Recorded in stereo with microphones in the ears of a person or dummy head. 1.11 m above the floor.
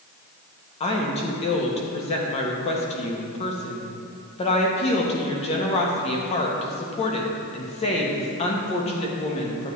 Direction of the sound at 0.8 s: 35° left (ahead or behind).